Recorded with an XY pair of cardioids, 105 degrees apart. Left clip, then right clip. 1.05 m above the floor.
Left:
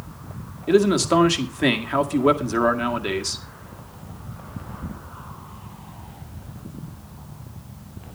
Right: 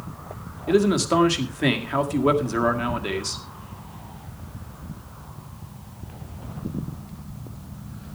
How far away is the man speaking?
About 1.7 m.